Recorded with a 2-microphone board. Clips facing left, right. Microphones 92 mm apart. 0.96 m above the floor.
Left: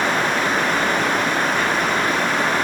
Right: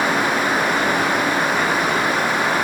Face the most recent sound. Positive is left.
No sound to turn to.